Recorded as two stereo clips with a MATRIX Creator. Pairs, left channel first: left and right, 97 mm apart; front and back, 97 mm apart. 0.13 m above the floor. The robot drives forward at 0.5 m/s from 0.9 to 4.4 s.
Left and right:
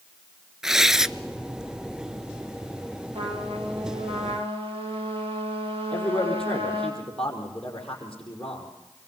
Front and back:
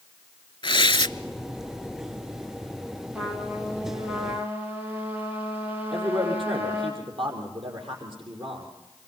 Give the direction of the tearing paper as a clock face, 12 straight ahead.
12 o'clock.